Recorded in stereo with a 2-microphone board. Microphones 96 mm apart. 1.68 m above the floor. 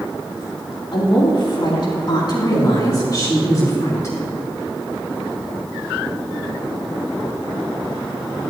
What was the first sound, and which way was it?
A woman speaking, 60° left (ahead or behind).